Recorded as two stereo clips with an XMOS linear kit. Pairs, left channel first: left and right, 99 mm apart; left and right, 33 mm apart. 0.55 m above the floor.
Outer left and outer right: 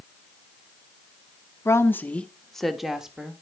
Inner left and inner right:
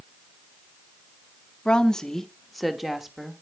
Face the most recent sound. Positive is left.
turn(degrees=-10)  # may be behind; listen again after turning